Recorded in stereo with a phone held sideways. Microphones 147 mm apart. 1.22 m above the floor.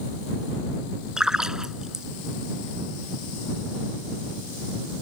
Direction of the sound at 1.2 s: 5° right (ahead or behind).